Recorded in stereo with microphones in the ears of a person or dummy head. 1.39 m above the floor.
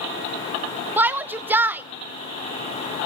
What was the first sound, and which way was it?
A shout, 15° right (ahead or behind).